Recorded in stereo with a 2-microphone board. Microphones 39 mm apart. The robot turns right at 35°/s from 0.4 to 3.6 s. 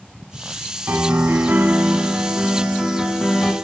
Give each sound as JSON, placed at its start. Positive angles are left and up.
{"t": 0.9, "sound": "a piano", "azimuth_deg": -85, "distance_m": 0.8}